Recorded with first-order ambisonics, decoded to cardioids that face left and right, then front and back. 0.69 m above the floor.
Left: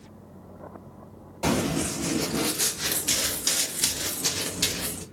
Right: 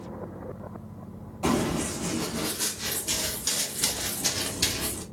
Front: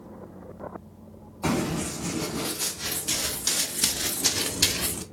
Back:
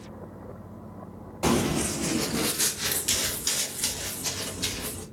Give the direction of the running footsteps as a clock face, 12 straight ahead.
7 o'clock.